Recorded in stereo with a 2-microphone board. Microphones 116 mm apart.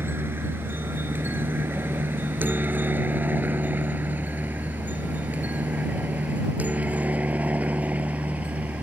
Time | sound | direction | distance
0.0 | a helicopter | 20° right (ahead or behind) | ?